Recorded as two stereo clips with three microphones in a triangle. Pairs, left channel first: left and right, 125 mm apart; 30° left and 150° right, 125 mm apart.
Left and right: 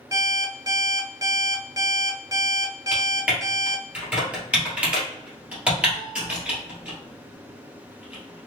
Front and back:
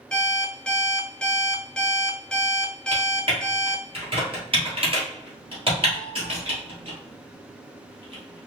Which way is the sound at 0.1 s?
50° right.